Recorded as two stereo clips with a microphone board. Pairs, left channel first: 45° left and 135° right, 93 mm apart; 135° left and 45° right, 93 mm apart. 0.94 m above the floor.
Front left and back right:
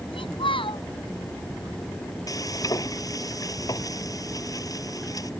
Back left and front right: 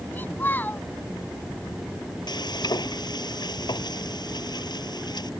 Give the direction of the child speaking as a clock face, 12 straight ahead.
10 o'clock.